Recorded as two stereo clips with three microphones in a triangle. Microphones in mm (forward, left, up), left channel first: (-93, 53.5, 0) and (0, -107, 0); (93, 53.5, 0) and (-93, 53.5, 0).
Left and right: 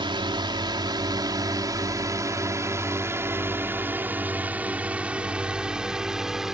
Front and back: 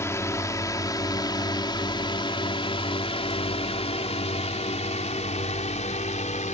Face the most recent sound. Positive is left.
turn(degrees=25)